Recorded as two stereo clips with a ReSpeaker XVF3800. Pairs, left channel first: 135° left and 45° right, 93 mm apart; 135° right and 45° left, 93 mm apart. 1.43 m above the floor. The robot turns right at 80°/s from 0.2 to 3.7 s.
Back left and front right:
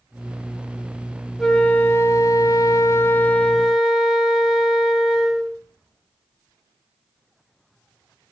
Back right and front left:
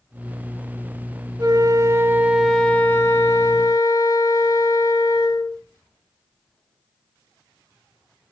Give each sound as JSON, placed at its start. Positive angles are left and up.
{"t": 1.4, "sound": "a flute", "azimuth_deg": 45, "distance_m": 1.4}